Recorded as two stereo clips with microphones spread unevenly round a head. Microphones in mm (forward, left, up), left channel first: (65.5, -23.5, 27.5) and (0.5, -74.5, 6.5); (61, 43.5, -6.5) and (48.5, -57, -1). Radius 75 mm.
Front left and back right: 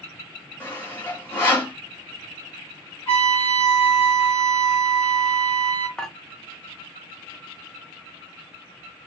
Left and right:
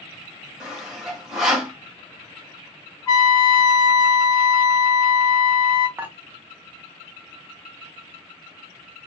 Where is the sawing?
15° right, 1.6 m.